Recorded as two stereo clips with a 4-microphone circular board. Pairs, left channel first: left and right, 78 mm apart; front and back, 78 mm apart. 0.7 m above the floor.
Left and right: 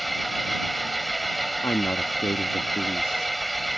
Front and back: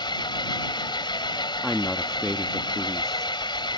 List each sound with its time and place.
0.0 s an engine running: straight ahead
1.6 s a woman speaking: 80° left